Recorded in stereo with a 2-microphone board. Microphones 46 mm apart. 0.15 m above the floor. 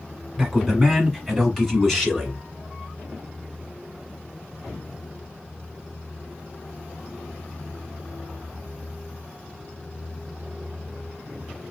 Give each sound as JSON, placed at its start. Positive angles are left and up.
{"t": 0.4, "sound": "a man speaking", "side_deg": 5, "distance_m": 1.4}